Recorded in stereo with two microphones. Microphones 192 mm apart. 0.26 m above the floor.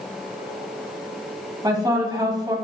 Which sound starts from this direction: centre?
A woman speaking, at 1.6 s.